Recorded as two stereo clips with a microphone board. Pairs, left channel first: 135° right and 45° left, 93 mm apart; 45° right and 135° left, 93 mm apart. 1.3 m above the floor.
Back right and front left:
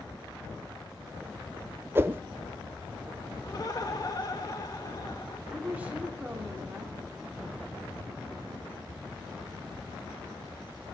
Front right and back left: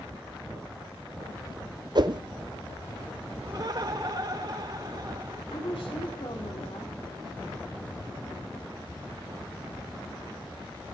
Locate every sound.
1.9 s a whoosh: 105° left, 0.6 m
3.4 s laughter: straight behind, 2.5 m
5.5 s a woman speaking: 30° right, 3 m